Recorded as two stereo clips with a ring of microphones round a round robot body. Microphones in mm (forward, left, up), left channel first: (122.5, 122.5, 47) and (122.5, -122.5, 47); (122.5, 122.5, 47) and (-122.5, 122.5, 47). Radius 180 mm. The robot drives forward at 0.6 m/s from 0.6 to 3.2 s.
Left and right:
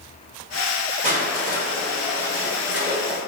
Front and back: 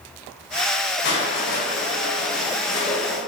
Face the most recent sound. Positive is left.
turn(degrees=-85)